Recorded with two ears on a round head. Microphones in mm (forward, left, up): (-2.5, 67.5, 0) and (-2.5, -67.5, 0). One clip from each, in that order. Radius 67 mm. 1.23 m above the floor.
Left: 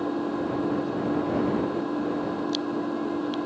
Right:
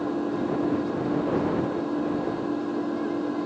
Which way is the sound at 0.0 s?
15° left (ahead or behind).